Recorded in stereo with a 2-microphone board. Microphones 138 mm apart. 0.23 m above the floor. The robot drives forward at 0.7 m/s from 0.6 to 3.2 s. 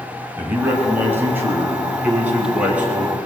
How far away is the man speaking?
About 1.7 m.